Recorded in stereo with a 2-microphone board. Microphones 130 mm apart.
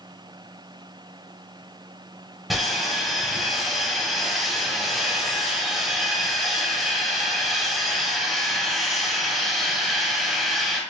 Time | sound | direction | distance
2.5 | sawing | centre (ahead or behind) | 1.0 m